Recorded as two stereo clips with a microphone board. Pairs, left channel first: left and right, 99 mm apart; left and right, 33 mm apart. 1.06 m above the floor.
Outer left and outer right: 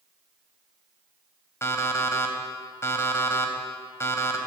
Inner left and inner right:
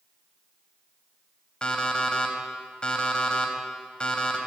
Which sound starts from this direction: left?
An alarm clock, at 1.6 s.